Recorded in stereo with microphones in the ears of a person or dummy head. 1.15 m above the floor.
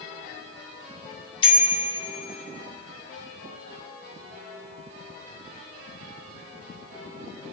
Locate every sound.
1.4 s a bicycle bell: 30° left (ahead or behind), 2.5 m